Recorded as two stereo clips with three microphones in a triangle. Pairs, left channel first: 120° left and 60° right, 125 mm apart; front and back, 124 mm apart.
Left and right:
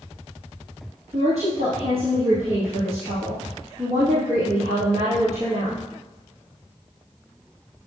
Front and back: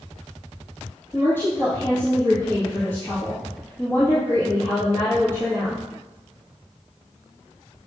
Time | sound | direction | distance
1.1 | a woman speaking | 70° right | 3.5 m